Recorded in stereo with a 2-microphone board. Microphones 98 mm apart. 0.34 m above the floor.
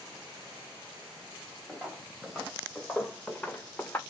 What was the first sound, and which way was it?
Footsteps, 5° right (ahead or behind).